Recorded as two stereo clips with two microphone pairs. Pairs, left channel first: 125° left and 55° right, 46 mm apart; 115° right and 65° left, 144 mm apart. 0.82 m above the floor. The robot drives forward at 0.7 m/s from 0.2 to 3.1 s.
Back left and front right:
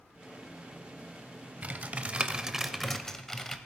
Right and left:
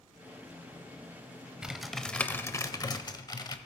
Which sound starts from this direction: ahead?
Typing on a keyboard, at 1.6 s.